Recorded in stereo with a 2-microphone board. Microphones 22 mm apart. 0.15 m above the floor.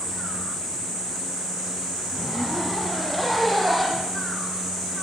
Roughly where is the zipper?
Centre.